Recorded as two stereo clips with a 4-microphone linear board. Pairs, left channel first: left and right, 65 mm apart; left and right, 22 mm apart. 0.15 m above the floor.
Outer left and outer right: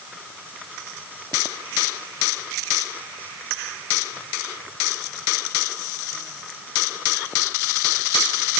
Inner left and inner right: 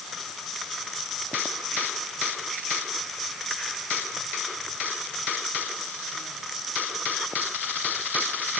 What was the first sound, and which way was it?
Only background noise.